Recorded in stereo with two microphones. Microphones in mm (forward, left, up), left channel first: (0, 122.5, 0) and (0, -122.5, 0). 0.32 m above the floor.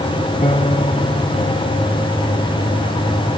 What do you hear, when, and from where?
0.4 s a piano: 25° left (ahead or behind), 1.2 m